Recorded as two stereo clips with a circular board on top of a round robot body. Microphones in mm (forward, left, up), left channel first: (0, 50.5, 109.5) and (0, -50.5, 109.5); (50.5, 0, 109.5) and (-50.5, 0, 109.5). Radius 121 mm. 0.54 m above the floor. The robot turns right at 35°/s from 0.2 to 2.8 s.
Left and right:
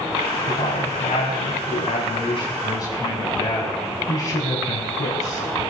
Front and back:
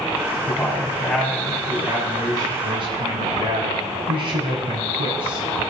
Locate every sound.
0.5 s a man speaking: 60° left, 6 m; by 5.7 s 145° left, 6 m